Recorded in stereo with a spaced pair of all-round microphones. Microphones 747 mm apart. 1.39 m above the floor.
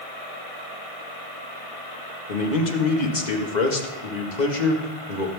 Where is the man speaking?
70° left (ahead or behind), 2 m.